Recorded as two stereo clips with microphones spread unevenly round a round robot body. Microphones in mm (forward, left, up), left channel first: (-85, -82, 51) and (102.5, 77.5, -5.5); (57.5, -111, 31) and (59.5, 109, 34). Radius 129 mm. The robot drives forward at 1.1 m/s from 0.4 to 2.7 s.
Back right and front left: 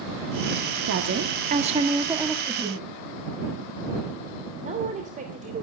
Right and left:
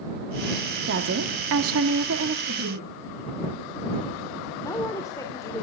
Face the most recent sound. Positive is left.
turn(degrees=-15)